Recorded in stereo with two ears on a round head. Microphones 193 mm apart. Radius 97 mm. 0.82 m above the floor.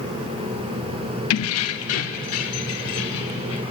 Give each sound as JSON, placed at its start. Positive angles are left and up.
{"t": 1.3, "sound": "keys jangling", "side_deg": 70, "distance_m": 0.8}